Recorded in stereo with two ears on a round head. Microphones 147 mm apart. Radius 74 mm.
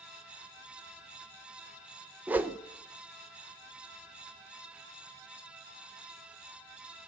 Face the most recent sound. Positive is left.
turn(degrees=-10)  # may be behind; listen again after turning